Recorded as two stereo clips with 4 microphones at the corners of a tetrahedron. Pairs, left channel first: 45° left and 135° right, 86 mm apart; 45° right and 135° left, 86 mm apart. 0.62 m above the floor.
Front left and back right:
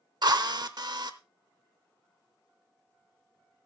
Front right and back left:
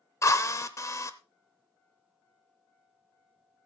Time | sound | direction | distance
0.2 | a drill | 100° right | 0.8 m